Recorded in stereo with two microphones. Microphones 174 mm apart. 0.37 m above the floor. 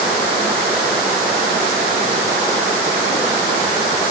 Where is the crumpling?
I don't hear crumpling.